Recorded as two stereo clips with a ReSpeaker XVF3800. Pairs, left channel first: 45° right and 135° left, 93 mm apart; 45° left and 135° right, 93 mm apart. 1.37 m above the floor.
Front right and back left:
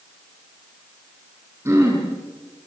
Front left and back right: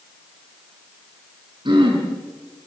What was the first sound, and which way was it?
Throat clearing, 165° right.